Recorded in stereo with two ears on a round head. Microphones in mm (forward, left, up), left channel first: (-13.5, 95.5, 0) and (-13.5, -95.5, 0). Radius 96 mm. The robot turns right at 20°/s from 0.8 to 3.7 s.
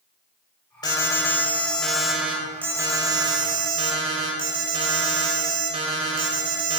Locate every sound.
0.8 s an alarm: 155° left, 2 m; by 6.8 s 145° right, 2 m